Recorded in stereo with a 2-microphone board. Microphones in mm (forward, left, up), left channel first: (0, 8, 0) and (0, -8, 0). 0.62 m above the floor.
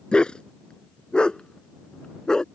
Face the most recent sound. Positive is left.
turn(degrees=55)  # may be behind; listen again after turning